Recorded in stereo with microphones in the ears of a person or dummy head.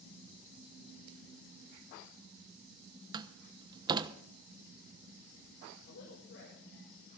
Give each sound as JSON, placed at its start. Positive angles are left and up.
{"t": 3.1, "sound": "a door slam", "side_deg": -20, "distance_m": 1.0}
{"t": 5.8, "sound": "a woman speaking", "side_deg": 65, "distance_m": 7.5}